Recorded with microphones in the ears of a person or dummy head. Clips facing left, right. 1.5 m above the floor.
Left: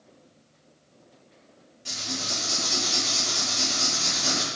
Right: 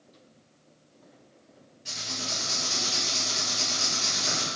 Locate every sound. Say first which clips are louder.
1.9 s writing: left 4 dB; 55° left (ahead or behind), 4.5 m